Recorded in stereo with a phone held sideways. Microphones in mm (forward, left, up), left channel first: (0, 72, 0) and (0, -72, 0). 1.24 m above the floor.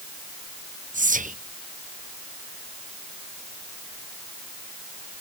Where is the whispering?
65° right (ahead or behind), 0.6 m.